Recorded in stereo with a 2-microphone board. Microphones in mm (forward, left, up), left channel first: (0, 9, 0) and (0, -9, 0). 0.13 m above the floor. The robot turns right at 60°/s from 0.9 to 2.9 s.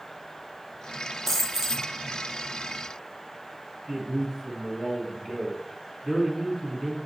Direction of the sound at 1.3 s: 175° right.